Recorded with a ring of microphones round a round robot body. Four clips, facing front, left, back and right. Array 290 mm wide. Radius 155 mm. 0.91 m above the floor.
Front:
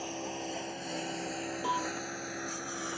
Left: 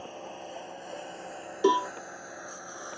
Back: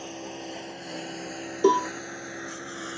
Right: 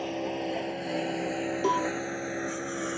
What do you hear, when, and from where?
0.0 s a lawn mower: 95° right; by 3.0 s 100° right
1.6 s a cowbell: 165° left